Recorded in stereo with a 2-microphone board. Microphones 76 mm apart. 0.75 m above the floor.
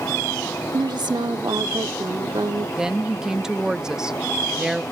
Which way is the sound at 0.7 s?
75° right (ahead or behind).